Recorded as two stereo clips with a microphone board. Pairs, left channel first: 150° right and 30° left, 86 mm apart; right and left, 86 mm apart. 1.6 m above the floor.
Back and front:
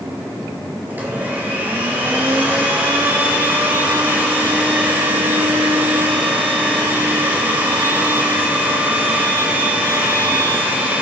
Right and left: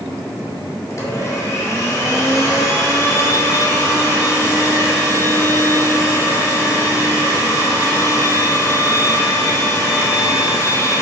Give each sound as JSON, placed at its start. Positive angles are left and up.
{"t": 0.9, "sound": "a blender", "azimuth_deg": -40, "distance_m": 3.5}